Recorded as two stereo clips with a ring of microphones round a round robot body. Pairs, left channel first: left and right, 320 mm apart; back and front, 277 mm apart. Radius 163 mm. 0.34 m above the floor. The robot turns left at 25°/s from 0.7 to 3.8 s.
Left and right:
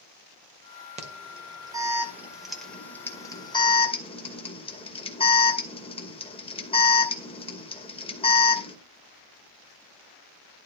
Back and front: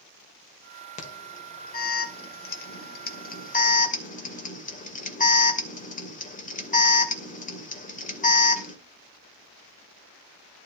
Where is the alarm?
140° right, 2.5 m; by 8.8 s 150° left, 2.5 m.